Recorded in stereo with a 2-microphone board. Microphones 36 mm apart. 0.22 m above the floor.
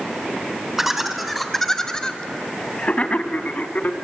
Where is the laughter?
10° right (ahead or behind), 1.5 m; by 3.9 s 50° left (ahead or behind), 1.9 m.